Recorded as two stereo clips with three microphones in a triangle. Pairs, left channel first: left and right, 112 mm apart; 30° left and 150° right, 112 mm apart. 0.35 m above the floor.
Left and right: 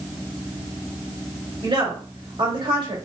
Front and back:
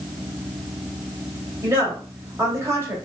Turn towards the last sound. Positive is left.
turn(degrees=-95)